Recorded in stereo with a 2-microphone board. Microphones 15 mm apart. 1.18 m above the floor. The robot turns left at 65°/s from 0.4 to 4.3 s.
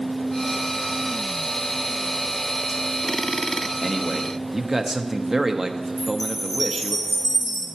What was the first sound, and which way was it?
A man speaking, 5° left.